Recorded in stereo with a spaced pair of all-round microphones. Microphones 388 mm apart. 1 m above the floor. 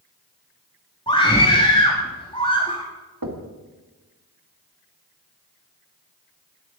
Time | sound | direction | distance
1.1 | a scream | 15° left (ahead or behind) | 2.0 m
3.2 | knocking | 65° right (ahead or behind) | 1.9 m